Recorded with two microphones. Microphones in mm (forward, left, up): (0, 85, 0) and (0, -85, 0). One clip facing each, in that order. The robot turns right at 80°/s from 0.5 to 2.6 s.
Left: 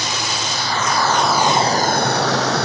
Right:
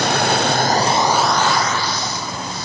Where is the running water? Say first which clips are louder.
Right 8 dB; 60° right; by 2.6 s 105° left.